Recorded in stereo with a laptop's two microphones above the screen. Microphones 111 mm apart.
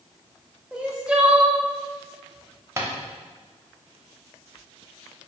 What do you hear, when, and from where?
0.7 s crying: 10° right (ahead or behind), 0.6 m
2.8 s tapping: 25° right (ahead or behind), 0.9 m